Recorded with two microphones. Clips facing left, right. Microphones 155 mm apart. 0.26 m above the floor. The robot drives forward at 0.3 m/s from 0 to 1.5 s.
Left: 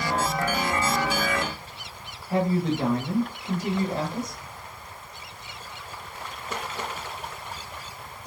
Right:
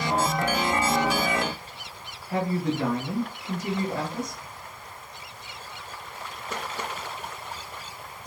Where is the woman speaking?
30° left (ahead or behind), 1.0 m.